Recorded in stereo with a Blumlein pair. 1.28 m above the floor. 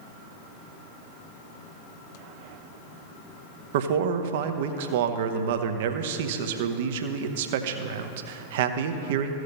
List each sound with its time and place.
3.7 s a man speaking: 55° right, 0.8 m